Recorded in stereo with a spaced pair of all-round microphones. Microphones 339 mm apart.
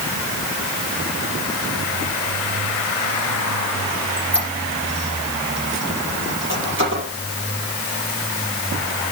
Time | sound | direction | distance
3.9 | a squeak | 35° right (ahead or behind) | 5 m